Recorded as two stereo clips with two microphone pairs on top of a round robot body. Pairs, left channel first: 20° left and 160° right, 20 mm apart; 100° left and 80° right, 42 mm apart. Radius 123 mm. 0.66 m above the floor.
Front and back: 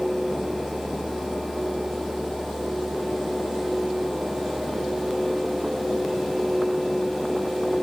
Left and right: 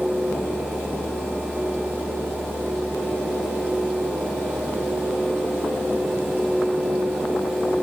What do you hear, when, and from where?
Only background noise.